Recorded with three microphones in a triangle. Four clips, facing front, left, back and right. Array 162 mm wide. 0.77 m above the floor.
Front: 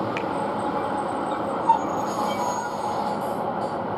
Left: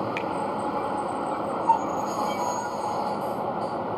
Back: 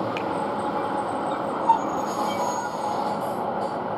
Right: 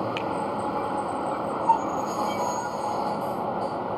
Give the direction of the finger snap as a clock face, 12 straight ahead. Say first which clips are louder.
Even, even; 1 o'clock.